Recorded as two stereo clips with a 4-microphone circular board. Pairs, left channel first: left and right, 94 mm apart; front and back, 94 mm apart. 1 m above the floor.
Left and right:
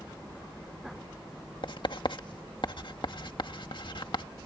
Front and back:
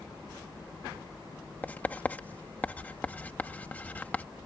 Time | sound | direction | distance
1.6 | writing | 70° left | ?